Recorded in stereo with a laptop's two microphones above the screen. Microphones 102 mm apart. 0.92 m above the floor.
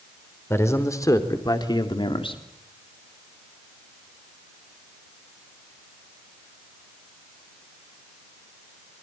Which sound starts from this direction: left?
A man speaking, at 0.5 s.